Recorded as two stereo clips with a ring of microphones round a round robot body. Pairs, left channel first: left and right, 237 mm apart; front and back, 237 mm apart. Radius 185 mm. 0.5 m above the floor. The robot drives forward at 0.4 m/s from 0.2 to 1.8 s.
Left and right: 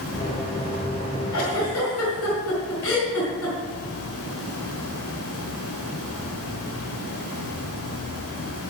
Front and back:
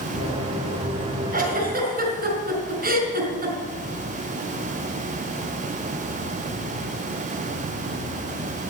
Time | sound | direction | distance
1.3 | a giggle | 125° left | 3.5 m